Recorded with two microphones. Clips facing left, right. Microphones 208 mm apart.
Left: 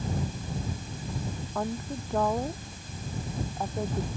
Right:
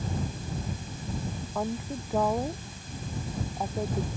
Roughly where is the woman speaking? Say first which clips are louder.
Right 1 dB; centre.